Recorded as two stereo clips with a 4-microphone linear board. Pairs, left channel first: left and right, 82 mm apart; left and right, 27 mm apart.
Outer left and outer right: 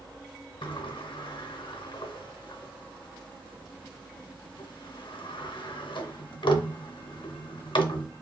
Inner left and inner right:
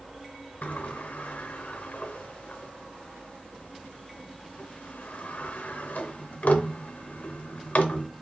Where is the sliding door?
85° left, 0.6 m.